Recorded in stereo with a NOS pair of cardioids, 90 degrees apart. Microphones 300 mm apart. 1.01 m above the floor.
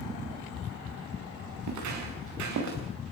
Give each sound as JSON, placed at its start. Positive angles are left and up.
{"t": 1.6, "sound": "footsteps", "azimuth_deg": -70, "distance_m": 8.0}